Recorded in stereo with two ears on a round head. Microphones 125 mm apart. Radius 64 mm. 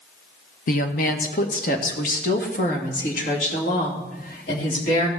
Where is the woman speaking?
65° left (ahead or behind), 1.1 m; by 5.1 s 70° left (ahead or behind), 3.5 m.